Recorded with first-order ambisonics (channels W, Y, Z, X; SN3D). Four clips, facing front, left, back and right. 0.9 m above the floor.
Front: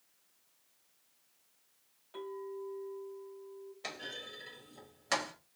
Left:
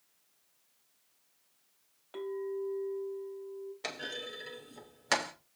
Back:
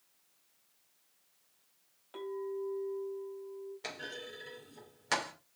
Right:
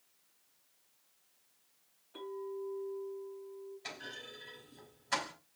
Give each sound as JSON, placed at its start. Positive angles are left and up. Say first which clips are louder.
{"t": 2.1, "sound": "a clink", "louder": "left 5 dB, back 4 dB", "azimuth_deg": 110, "distance_m": 3.0}
{"t": 3.8, "sound": "a clunk", "louder": "left 8 dB, front 3 dB", "azimuth_deg": 95, "distance_m": 3.0}